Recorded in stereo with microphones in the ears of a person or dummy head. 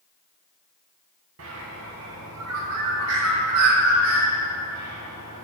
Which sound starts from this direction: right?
A bird, at 1.4 s.